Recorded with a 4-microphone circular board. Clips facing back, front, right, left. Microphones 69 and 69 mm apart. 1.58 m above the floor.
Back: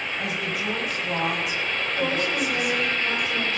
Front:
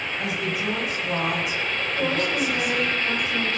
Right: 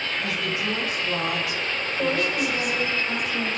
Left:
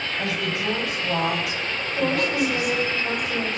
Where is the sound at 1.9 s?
105° left, 9 m.